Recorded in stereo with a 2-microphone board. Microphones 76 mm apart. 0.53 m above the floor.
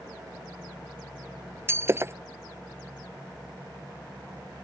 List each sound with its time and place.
1.7 s breaking glass: 35° right (ahead or behind)